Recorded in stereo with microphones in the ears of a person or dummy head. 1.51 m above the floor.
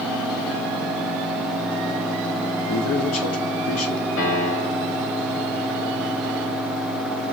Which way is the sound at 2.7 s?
80° left.